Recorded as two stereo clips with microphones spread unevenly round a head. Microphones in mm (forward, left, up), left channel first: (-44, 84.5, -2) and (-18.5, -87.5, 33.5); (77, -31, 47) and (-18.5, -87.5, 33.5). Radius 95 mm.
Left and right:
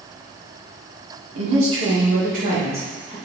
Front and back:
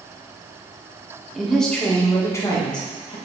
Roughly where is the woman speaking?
Ahead right.